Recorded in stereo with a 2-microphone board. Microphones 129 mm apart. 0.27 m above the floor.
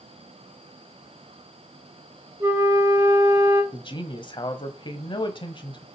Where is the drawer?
No drawer in this recording.